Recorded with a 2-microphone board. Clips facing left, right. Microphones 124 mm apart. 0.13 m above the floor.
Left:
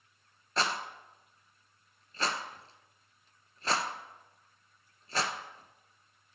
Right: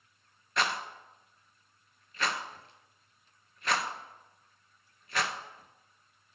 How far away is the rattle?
About 0.5 m.